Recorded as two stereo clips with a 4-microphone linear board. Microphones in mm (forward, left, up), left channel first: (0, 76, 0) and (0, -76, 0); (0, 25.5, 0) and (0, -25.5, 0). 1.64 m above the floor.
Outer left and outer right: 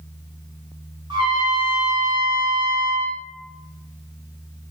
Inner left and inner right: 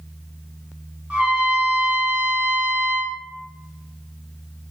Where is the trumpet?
30° right (ahead or behind), 0.9 m.